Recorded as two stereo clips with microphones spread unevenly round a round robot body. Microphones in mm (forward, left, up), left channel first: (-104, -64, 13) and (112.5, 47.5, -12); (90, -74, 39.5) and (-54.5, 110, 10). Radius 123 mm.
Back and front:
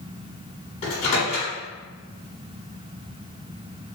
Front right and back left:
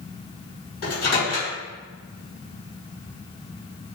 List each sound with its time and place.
0.8 s a microwave: 95° right, 1.5 m